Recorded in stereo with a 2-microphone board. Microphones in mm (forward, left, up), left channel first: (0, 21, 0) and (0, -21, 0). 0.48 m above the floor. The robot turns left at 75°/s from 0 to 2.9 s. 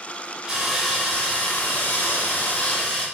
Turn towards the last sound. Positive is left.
turn(degrees=25)